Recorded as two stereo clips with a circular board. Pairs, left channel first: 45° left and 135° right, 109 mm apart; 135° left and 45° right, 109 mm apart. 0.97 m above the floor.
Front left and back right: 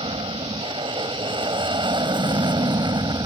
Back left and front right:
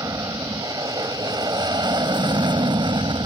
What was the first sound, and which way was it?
An aircraft, 100° right.